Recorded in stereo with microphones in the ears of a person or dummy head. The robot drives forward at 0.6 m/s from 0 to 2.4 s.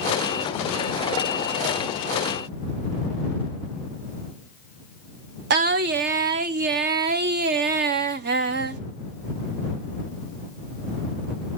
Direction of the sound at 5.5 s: 45° right (ahead or behind).